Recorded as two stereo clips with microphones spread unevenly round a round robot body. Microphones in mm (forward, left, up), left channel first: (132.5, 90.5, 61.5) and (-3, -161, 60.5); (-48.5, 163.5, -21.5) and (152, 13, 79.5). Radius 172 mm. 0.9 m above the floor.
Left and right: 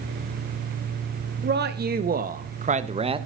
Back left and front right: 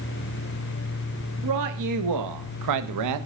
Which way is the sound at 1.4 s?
65° right.